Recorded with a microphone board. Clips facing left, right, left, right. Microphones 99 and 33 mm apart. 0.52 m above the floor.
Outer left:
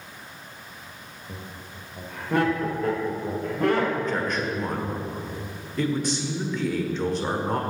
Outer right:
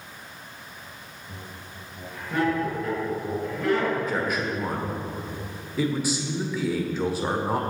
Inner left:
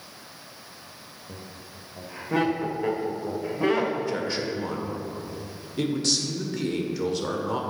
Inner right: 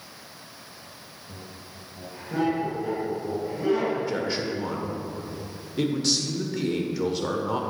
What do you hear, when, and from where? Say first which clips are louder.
1.3 s laughter: outer left 2 dB, inner left 1 dB; 65° left (ahead or behind), 1.6 m
4.0 s a man speaking: even, even; 5° right (ahead or behind), 1.4 m